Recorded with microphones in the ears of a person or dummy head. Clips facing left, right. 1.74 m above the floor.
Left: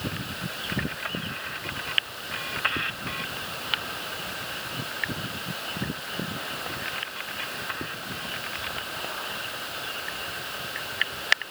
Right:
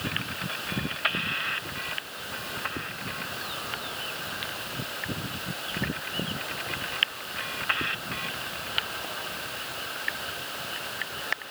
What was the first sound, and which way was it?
Only background noise.